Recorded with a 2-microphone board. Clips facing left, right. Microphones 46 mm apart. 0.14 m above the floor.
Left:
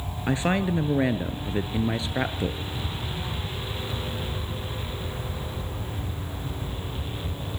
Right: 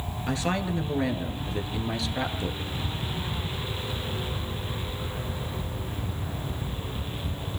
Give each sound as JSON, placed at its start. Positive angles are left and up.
{"t": 0.3, "sound": "a woman speaking", "side_deg": 25, "distance_m": 1.8}